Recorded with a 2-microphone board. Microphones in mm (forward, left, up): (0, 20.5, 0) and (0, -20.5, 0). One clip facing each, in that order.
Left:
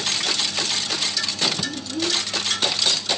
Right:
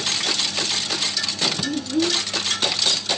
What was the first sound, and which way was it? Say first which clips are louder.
A child speaking: right 4 dB; 65° right (ahead or behind).